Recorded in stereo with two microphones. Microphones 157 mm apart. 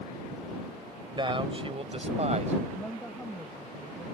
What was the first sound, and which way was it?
A man speaking, 30° right (ahead or behind).